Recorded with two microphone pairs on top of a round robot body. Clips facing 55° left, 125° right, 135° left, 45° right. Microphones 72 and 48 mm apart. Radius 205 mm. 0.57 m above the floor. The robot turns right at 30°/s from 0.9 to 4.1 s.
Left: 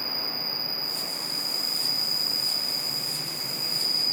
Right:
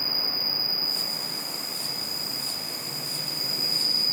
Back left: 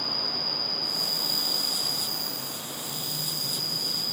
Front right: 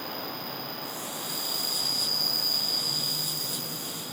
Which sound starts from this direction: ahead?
An insect, at 0.0 s.